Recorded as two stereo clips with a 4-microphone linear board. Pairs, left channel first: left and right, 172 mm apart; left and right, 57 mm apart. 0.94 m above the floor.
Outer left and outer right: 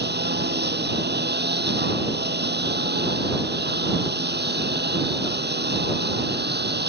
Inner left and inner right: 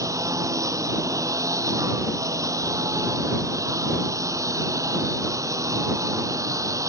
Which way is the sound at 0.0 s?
80° right.